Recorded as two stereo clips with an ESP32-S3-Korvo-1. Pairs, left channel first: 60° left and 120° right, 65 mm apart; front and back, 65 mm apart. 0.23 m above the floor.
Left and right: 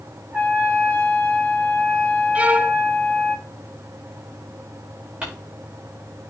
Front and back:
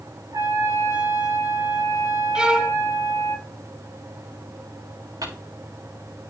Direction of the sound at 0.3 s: 170° left.